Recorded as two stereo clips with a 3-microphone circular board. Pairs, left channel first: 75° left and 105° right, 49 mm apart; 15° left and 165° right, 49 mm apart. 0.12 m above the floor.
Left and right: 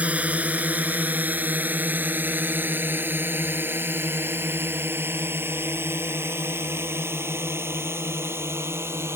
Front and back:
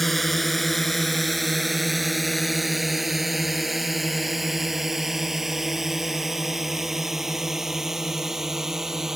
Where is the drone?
70° right; by 9.2 s 85° right.